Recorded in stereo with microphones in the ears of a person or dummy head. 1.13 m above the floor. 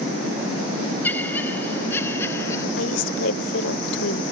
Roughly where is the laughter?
Centre.